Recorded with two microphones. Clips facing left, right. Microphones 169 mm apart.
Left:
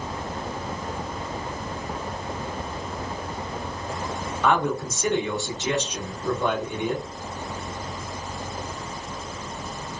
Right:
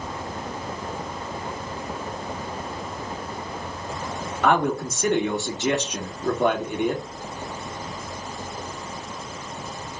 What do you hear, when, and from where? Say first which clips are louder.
4.4 s a man speaking: right 2 dB; 65° right (ahead or behind), 1.6 m